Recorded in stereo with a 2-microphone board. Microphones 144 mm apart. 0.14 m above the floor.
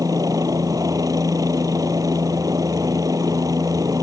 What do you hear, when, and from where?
0.0 s a helicopter: 25° right (ahead or behind)